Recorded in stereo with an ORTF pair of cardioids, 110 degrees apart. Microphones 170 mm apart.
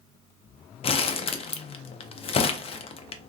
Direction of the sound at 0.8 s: 35° left.